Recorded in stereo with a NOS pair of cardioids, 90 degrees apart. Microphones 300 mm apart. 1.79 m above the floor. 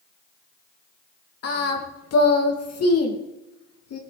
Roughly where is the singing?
Ahead left.